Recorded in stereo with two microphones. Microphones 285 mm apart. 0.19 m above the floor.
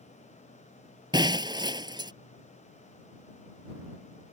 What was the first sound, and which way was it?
Breaking glass, 15° right (ahead or behind).